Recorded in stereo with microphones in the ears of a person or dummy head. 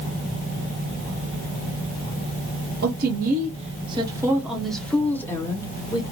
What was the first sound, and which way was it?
A woman speaking, 60° right (ahead or behind).